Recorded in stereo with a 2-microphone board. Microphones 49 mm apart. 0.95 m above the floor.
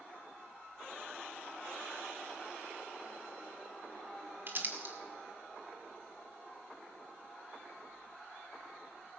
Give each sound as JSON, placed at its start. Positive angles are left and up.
{"t": 4.5, "sound": "crumpling", "side_deg": -50, "distance_m": 1.8}